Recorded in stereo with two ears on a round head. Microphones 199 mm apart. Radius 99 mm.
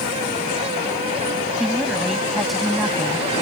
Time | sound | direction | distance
1.6 | a woman speaking | centre (ahead or behind) | ?